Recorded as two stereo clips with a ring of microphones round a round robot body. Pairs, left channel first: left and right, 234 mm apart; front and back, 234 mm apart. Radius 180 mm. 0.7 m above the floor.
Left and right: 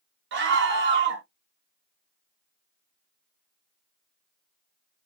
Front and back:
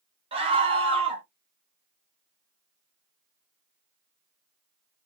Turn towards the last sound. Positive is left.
turn(degrees=-115)